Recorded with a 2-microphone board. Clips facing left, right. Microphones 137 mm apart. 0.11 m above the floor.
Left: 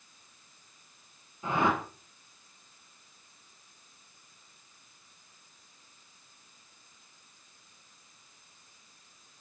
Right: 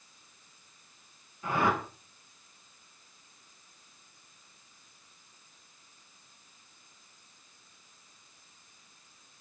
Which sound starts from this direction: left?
A whoosh, at 1.4 s.